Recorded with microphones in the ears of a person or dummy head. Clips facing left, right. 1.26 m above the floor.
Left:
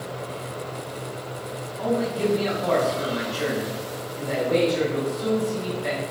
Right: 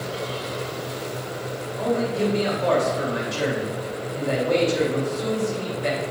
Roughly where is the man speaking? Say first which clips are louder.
Right 1 dB; right.